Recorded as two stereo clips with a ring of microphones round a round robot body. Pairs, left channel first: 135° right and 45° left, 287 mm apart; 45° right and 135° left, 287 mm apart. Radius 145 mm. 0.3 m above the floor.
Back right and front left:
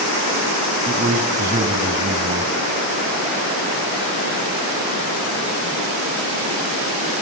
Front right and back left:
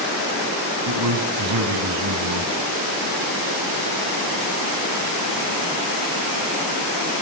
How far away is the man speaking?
About 2.0 m.